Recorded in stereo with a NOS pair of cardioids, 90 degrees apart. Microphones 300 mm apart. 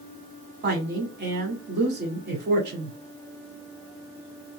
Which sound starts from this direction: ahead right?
A woman speaking, at 0.6 s.